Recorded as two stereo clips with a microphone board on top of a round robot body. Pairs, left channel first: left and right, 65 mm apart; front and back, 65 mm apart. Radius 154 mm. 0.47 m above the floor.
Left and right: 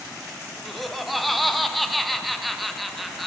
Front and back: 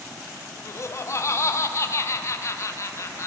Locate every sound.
0.7 s laughter: straight ahead, 0.9 m